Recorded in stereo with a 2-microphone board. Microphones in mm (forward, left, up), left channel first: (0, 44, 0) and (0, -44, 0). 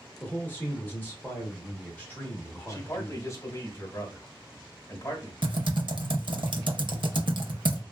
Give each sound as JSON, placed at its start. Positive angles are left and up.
{"t": 0.2, "sound": "a man speaking", "side_deg": 25, "distance_m": 1.0}
{"t": 2.7, "sound": "a man speaking", "side_deg": 35, "distance_m": 1.2}
{"t": 5.4, "sound": "typing on a keyboard", "side_deg": -60, "distance_m": 0.6}